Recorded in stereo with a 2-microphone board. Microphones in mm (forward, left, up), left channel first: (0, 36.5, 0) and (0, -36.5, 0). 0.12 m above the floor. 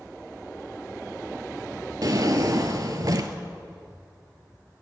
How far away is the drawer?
About 0.6 m.